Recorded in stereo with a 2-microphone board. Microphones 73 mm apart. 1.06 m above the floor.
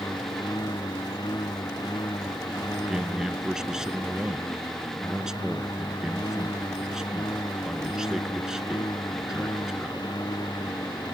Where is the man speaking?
10° right (ahead or behind).